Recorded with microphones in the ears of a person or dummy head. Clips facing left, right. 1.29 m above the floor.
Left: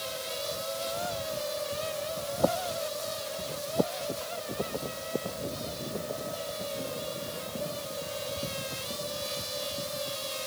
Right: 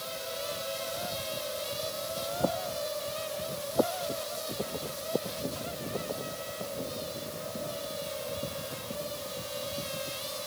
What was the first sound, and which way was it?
Only background noise.